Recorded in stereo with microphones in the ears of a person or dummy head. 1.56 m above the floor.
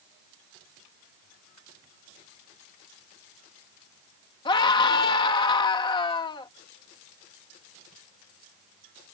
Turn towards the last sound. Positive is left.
turn(degrees=25)  # may be behind; listen again after turning